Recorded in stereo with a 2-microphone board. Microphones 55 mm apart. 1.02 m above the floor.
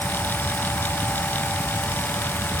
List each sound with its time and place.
Only background noise.